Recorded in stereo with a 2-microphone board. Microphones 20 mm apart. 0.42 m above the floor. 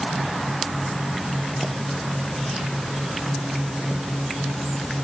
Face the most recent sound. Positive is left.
No sound to turn to.